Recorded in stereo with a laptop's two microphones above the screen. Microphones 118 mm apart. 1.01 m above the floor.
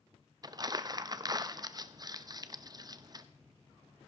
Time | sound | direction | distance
0.4 | crumpling | 35° right (ahead or behind) | 0.7 m